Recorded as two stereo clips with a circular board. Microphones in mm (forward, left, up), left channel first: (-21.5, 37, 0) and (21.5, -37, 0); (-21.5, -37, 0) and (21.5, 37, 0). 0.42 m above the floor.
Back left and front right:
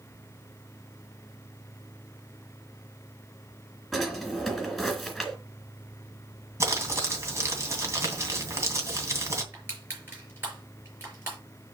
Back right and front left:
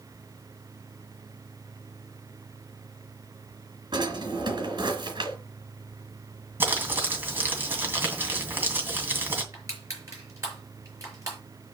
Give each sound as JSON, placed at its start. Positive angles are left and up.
{"t": 3.9, "sound": "a drawer", "azimuth_deg": 30, "distance_m": 2.5}
{"t": 6.6, "sound": "crumpling", "azimuth_deg": -5, "distance_m": 2.5}
{"t": 9.5, "sound": "crushing", "azimuth_deg": 5, "distance_m": 5.5}